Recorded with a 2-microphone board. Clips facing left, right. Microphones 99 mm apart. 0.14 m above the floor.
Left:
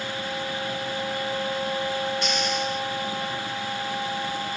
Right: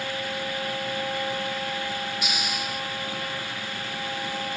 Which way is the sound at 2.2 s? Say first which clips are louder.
Left 5 dB; 10° right (ahead or behind).